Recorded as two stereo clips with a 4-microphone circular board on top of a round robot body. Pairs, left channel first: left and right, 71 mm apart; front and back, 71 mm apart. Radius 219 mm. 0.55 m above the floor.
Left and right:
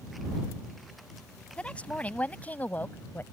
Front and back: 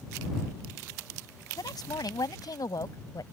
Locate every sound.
1.6 s a woman speaking: 15° left; by 3.2 s 30° left